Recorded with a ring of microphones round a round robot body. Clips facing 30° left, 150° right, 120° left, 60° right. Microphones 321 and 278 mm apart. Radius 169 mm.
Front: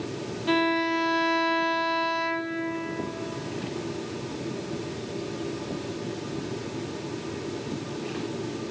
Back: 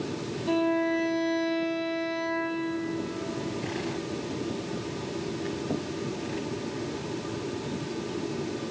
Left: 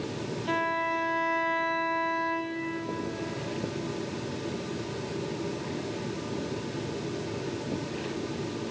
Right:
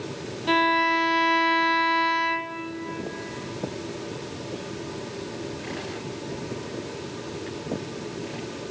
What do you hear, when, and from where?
0.5 s a violin: 25° right, 2 m